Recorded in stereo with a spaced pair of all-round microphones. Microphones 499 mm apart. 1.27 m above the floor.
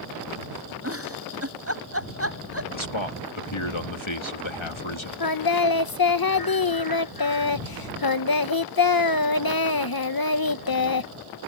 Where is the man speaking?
65° left (ahead or behind).